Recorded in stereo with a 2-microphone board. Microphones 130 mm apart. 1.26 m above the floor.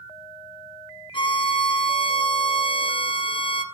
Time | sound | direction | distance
1.1 | a violin | 40° left (ahead or behind) | 0.8 m